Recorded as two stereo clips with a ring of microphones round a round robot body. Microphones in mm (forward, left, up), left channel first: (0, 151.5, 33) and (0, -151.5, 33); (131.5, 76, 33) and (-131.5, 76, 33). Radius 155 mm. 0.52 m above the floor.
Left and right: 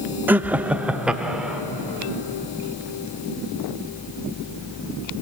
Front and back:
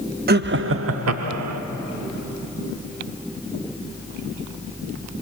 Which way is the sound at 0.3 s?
170° right.